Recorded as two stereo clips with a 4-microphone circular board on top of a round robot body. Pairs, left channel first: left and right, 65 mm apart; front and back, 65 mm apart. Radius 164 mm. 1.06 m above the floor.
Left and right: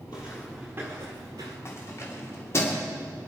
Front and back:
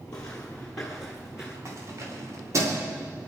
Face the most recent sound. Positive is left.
turn(degrees=140)